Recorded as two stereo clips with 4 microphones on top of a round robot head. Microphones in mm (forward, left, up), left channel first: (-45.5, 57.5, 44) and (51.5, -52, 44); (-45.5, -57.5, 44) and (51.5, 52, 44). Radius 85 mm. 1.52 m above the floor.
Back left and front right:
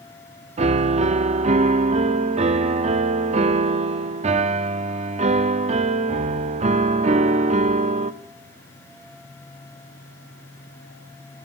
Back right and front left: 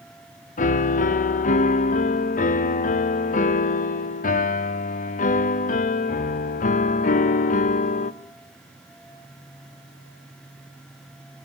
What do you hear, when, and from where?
0.6 s a piano: 95° right, 0.6 m